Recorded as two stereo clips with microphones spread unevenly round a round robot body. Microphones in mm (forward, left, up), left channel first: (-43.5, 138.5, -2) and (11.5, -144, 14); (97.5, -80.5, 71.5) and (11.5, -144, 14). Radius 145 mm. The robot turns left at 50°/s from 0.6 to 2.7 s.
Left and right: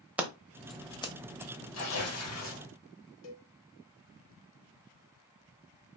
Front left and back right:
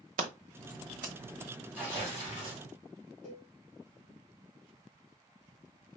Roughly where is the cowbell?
Left.